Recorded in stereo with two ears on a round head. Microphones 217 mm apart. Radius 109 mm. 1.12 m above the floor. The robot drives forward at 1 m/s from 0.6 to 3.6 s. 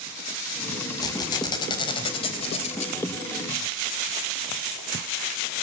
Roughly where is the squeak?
Centre.